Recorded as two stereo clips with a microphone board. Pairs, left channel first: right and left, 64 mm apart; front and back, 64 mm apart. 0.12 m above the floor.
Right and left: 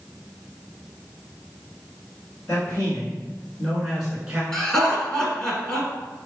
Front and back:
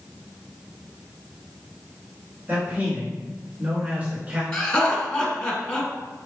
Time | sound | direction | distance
2.5 | a man speaking | 130° right | 1.6 m
4.5 | laughter | 45° right | 1.0 m